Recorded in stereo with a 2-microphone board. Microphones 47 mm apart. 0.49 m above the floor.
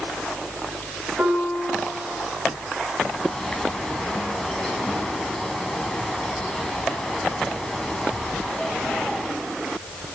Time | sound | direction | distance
1.2 | a piano | 25° right (ahead or behind) | 7 m
3.1 | a bird | 10° left (ahead or behind) | 3.5 m